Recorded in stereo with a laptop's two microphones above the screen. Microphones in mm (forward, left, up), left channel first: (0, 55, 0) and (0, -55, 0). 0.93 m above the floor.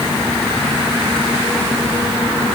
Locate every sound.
Only background noise.